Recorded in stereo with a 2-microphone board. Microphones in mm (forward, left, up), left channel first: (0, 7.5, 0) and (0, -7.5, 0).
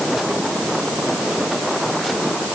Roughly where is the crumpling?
No crumpling in this recording.